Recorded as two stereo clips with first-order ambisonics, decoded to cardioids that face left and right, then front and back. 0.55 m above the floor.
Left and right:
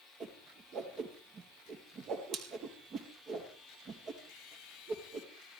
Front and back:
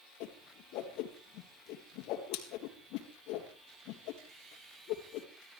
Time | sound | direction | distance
0.2 | a whoosh | 30° right | 3.5 m